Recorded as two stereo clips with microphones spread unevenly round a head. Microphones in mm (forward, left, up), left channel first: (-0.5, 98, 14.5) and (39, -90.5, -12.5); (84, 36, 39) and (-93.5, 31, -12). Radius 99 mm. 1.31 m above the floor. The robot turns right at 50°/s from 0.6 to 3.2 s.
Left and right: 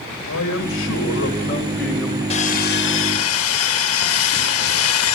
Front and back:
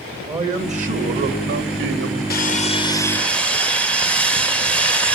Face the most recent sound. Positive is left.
turn(degrees=85)